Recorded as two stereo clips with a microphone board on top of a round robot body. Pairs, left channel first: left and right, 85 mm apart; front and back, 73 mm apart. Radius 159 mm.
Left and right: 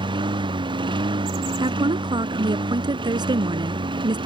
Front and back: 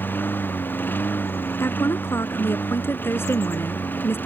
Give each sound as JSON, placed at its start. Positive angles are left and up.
{"t": 0.0, "sound": "a lawn mower", "azimuth_deg": -65}
{"t": 1.6, "sound": "a woman speaking", "azimuth_deg": -55}